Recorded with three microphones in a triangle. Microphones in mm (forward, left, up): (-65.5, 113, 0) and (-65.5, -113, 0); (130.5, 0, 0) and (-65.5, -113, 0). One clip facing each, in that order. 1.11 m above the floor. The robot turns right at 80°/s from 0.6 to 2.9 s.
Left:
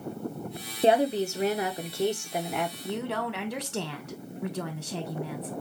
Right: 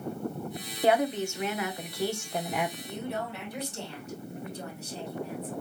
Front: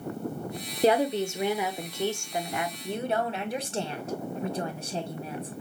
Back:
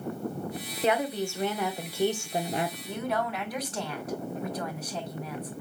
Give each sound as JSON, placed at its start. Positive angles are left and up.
{"t": 0.8, "sound": "a woman speaking", "azimuth_deg": 45, "distance_m": 0.7}
{"t": 2.8, "sound": "a woman speaking", "azimuth_deg": 85, "distance_m": 0.9}